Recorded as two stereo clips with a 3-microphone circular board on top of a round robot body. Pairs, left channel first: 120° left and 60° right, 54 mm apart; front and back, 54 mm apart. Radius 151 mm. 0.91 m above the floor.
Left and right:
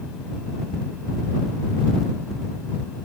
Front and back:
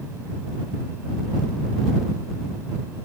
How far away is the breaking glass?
No breaking glass in this recording.